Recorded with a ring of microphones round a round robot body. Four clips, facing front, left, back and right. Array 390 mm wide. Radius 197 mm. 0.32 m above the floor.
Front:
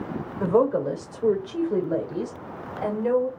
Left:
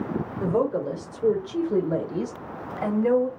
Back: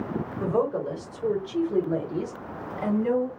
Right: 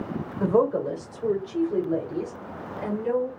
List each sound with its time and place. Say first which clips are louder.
0.4 s a woman speaking: right 3 dB, front 5 dB; 35° right, 1.2 m; by 3.3 s 65° left, 1.7 m